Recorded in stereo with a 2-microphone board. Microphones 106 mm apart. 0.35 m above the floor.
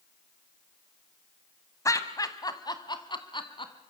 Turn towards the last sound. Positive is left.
turn(degrees=50)  # may be behind; listen again after turning